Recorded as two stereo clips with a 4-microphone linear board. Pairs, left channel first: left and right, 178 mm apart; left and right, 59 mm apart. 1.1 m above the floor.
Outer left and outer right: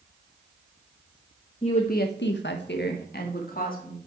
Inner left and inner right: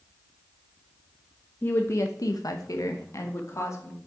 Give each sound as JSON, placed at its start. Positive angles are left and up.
{"t": 1.6, "sound": "a woman speaking", "side_deg": 30, "distance_m": 0.9}